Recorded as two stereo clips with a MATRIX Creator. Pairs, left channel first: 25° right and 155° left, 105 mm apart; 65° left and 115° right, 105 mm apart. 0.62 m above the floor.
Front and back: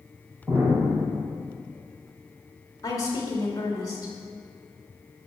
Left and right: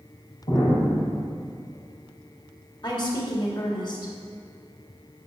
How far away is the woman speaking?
About 2 m.